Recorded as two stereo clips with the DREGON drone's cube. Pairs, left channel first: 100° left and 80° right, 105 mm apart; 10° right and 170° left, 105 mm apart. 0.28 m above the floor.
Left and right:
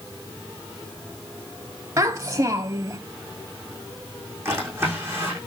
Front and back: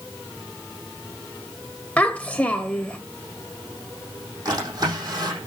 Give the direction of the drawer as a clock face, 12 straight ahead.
5 o'clock.